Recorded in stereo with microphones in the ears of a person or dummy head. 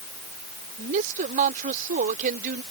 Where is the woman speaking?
40° right (ahead or behind); by 2.6 s 50° right (ahead or behind).